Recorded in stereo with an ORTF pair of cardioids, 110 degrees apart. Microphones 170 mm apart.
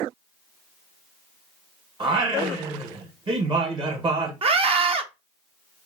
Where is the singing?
30° right, 1.1 m.